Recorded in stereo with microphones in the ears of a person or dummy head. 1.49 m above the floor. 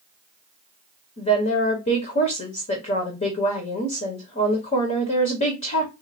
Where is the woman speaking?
40° left (ahead or behind), 1.2 m.